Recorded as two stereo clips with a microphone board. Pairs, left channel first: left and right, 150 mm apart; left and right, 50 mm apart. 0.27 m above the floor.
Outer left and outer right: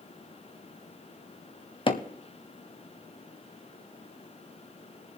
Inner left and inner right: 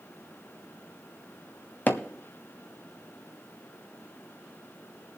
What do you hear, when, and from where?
1.9 s hammering: 35° left (ahead or behind), 1.0 m